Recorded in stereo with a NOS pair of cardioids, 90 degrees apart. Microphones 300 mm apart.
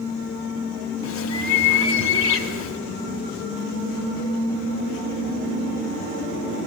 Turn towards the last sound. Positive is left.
turn(degrees=60)